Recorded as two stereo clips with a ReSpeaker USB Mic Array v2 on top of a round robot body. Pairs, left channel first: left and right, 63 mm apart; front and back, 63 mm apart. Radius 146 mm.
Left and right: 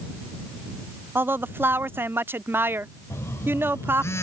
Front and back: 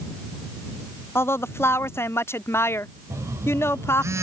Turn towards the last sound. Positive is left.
turn(degrees=135)